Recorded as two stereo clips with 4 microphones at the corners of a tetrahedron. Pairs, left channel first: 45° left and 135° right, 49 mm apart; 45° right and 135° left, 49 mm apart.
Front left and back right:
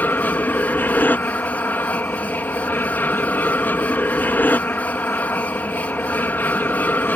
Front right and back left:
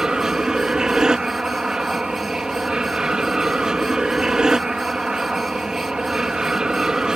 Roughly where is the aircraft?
Ahead left.